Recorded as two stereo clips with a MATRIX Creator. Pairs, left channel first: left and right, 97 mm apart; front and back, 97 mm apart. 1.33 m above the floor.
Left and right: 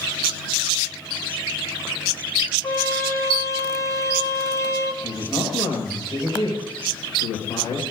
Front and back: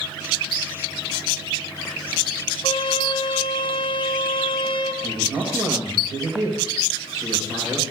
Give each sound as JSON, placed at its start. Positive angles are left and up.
{"t": 2.6, "sound": "a trumpet", "azimuth_deg": 35, "distance_m": 1.4}
{"t": 5.0, "sound": "a woman speaking", "azimuth_deg": 135, "distance_m": 6.0}